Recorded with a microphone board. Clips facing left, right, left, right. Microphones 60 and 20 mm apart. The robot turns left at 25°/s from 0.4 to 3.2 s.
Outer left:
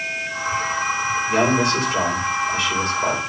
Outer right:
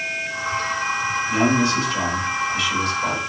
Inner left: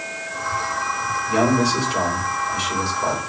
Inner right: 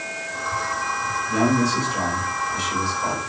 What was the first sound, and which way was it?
A man speaking, 75° left.